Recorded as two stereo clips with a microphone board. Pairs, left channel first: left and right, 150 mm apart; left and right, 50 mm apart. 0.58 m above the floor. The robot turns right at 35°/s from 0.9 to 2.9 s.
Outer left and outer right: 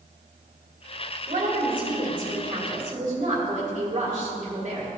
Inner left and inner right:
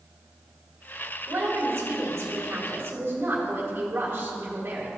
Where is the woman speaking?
120° right, 1.9 m; by 4.9 s 60° right, 1.9 m.